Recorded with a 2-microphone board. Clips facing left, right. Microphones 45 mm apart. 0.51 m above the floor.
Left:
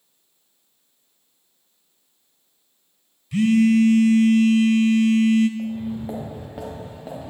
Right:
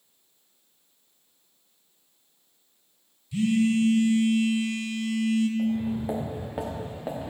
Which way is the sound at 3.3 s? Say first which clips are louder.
Left 7 dB; 80° left.